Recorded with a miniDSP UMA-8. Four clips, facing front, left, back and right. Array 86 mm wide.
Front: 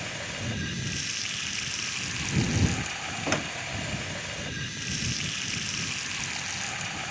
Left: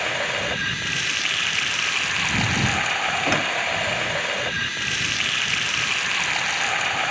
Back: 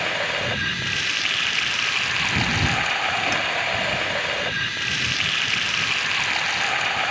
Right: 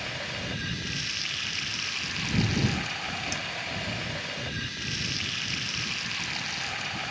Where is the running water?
135° left.